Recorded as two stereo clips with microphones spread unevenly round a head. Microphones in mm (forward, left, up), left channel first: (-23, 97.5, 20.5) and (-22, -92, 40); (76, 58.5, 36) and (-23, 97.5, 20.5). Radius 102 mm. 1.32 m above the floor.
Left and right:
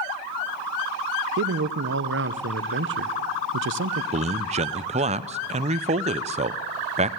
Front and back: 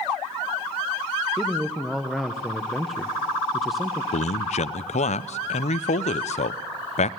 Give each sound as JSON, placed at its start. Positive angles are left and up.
{"t": 1.4, "sound": "a man speaking", "azimuth_deg": -115, "distance_m": 0.9}
{"t": 4.1, "sound": "a man speaking", "azimuth_deg": -30, "distance_m": 0.6}